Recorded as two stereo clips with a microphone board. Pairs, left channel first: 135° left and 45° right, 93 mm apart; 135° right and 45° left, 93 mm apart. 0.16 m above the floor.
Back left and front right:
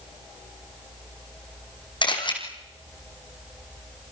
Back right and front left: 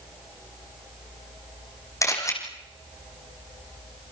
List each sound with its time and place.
2.0 s a camera shutter: 170° left, 4.5 m